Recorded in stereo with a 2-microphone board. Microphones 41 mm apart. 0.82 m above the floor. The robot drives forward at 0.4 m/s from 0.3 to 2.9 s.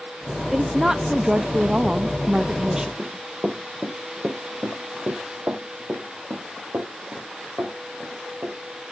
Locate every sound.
0.5 s a woman speaking: 10° right (ahead or behind), 0.8 m; by 2.9 s 20° right (ahead or behind), 0.5 m
3.0 s running footsteps: 10° right (ahead or behind), 1.7 m; by 8.6 s 70° right (ahead or behind), 4.5 m